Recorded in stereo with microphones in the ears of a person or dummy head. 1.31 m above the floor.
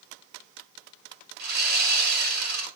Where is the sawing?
50° right (ahead or behind), 4.5 m.